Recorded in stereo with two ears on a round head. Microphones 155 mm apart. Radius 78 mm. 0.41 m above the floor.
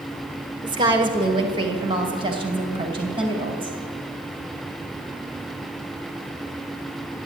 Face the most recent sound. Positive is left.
turn(degrees=-30)  # may be behind; listen again after turning